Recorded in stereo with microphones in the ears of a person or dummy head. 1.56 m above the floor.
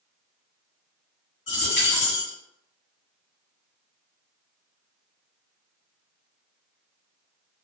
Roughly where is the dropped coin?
Left.